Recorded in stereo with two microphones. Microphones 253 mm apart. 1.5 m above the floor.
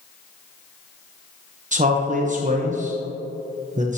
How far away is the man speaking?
About 0.8 m.